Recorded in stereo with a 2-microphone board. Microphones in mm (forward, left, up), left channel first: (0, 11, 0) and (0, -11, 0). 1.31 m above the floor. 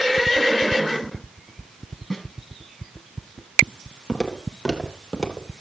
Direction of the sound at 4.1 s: 5° left (ahead or behind).